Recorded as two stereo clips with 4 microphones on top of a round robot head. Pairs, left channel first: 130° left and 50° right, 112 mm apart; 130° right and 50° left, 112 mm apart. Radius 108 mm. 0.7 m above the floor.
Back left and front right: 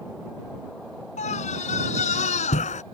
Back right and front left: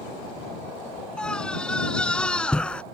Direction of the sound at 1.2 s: 145° left.